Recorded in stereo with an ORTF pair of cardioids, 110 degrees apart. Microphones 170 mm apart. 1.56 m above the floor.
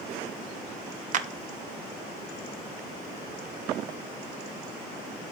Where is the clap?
50° right, 0.7 m.